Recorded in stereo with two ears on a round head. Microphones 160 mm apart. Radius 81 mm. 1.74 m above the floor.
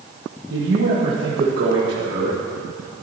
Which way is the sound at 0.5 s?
60° right (ahead or behind).